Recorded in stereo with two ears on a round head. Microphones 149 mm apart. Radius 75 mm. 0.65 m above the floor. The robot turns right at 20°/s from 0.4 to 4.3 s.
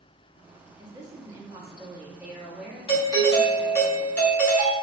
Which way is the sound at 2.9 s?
25° left (ahead or behind).